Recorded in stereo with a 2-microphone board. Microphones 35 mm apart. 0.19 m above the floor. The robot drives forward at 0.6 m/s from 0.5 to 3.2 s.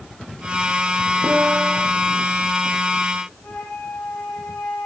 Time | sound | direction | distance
1.2 | a piano | 20° right (ahead or behind) | 1.6 m
3.4 | a flute | 60° left (ahead or behind) | 9 m